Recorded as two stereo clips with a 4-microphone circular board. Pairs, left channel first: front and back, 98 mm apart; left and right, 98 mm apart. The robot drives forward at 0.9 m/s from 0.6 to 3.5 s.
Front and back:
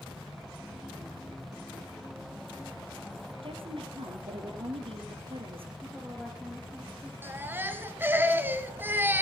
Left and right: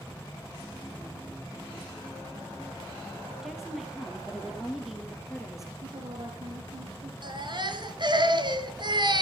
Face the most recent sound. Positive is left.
turn(degrees=-115)